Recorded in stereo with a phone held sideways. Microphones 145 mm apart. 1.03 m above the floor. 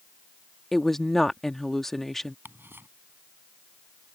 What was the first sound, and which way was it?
A woman speaking, centre (ahead or behind).